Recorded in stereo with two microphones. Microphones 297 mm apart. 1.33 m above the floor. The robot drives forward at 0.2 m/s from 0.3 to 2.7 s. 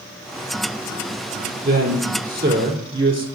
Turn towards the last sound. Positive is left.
turn(degrees=-40)  # may be behind; listen again after turning